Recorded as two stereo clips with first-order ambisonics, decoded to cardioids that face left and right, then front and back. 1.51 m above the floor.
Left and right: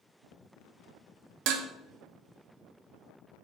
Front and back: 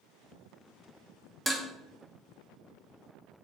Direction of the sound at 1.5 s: 90° right.